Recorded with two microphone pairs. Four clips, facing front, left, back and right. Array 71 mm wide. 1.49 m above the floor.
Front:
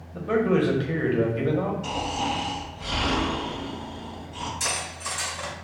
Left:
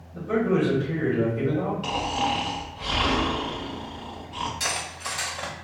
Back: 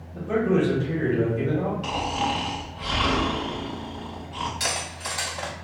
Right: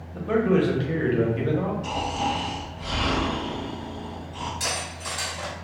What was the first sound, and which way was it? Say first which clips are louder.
A man speaking: right 2 dB, even; 30° right.